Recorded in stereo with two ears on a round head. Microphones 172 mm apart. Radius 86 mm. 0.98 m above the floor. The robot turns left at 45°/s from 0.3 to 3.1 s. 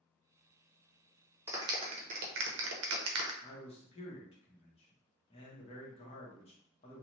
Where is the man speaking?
30° left (ahead or behind), 0.8 m.